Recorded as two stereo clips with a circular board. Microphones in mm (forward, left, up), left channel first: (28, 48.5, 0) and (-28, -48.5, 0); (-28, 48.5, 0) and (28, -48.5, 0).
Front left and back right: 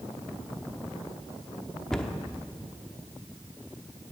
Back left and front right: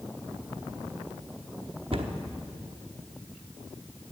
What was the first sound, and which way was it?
A cupboard door, 25° right.